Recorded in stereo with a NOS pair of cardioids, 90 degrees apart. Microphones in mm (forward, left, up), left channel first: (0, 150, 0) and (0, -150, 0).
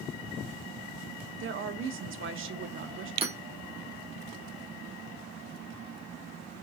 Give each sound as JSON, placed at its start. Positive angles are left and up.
{"t": 1.4, "sound": "a woman speaking", "azimuth_deg": -45, "distance_m": 0.6}
{"t": 3.2, "sound": "hammering", "azimuth_deg": -20, "distance_m": 0.8}